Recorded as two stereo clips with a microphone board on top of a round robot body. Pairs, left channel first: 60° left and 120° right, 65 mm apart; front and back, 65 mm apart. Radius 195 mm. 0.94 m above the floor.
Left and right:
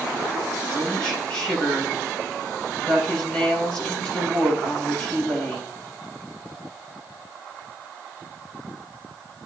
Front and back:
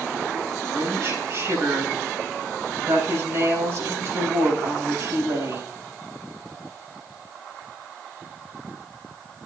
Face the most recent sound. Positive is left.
turn(degrees=135)